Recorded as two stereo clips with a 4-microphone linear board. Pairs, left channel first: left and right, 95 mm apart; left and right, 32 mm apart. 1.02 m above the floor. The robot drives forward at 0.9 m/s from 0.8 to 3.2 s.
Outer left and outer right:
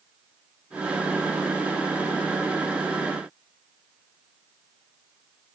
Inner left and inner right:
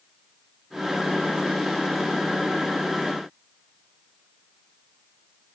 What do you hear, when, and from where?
Only background noise.